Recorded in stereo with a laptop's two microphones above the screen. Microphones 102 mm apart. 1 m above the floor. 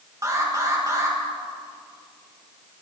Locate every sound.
0.2 s an alarm: 30° right (ahead or behind), 1.9 m